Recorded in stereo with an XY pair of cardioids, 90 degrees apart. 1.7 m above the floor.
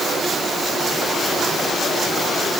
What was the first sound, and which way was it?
Only background noise.